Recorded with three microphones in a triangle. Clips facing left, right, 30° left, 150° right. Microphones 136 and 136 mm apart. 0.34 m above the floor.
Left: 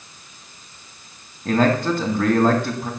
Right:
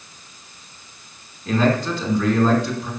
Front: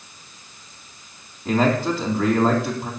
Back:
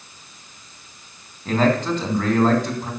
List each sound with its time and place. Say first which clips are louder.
1.4 s a man speaking: left 1 dB, even; 115° left, 3 m